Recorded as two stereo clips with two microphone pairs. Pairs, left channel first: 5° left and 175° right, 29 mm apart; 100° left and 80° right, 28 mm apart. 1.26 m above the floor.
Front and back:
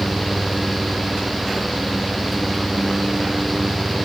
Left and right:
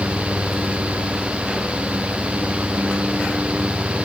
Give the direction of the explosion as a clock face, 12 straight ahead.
I don't hear an explosion.